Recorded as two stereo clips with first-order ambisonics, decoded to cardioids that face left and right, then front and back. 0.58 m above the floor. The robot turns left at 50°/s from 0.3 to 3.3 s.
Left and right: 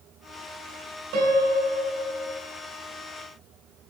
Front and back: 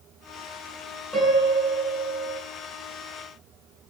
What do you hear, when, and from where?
1.1 s a piano: 90° right, 7 m; by 2.4 s 155° right, 7 m